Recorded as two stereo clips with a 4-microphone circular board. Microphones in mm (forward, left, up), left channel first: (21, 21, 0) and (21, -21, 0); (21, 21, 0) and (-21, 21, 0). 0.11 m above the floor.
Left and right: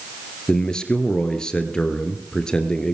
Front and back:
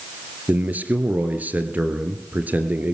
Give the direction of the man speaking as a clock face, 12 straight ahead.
7 o'clock.